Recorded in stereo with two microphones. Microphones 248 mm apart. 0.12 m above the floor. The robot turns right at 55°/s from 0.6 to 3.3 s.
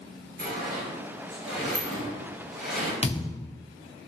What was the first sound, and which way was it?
A sliding door, 40° right (ahead or behind).